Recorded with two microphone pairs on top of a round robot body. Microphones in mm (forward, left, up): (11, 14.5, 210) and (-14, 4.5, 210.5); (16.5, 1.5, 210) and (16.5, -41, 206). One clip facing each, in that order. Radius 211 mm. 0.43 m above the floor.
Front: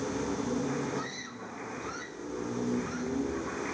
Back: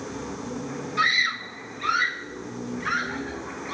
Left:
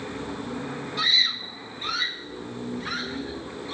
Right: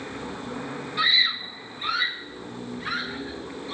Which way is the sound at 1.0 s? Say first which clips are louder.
Back 16 dB, right 2 dB; 165° right.